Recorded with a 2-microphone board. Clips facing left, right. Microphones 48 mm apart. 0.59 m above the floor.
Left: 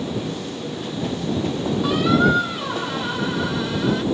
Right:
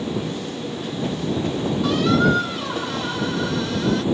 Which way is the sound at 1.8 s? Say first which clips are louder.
Left 1 dB; 10° left (ahead or behind).